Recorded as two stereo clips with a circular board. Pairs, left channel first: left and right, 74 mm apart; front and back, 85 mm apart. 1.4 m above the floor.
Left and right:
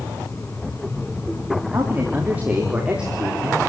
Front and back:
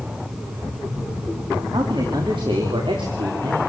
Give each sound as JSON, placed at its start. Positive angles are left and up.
{"t": 1.7, "sound": "a man speaking", "azimuth_deg": -150, "distance_m": 3.5}